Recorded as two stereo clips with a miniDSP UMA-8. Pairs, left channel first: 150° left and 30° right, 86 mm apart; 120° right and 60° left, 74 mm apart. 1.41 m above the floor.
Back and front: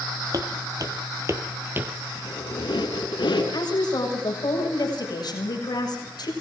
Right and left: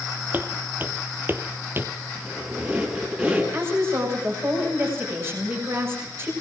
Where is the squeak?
125° left, 6 m.